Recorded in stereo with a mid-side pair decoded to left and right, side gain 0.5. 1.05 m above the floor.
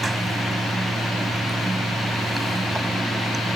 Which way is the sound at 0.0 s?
15° right.